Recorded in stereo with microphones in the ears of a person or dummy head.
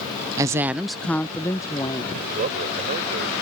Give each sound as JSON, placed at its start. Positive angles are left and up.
{"t": 0.4, "sound": "a woman speaking", "side_deg": -15}
{"t": 2.1, "sound": "a man speaking", "side_deg": -45}